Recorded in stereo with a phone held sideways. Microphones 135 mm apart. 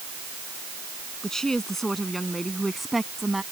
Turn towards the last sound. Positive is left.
turn(degrees=-5)  # may be behind; listen again after turning